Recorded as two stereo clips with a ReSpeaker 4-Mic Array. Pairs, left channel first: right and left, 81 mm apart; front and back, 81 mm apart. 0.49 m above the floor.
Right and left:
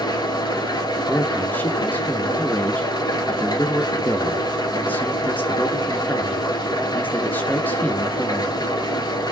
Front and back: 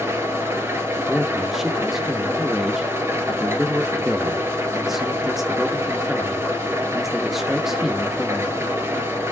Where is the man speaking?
100° right, 0.7 m.